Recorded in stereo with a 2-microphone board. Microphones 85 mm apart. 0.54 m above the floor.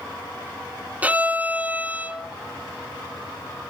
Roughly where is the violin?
Centre.